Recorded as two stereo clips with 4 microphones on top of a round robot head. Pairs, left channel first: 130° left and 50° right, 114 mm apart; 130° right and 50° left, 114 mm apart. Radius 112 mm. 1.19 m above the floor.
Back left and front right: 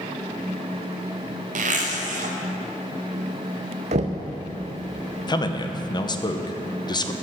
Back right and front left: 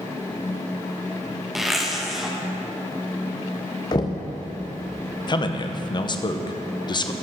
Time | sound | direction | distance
1.6 | a zipper | 40° right | 0.9 m
3.9 | knocking | 75° right | 0.5 m
5.3 | a man speaking | straight behind | 0.8 m